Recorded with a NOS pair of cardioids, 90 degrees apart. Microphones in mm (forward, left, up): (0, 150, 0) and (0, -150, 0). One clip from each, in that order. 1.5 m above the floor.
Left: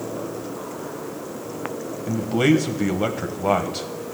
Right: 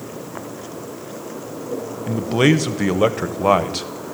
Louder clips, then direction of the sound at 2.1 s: Right 2 dB; 25° right.